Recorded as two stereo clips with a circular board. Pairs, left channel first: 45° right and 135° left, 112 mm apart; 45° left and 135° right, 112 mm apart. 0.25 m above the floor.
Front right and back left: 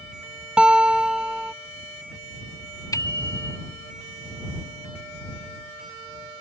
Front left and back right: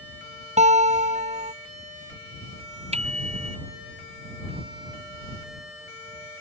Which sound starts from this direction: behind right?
A guitar, at 0.6 s.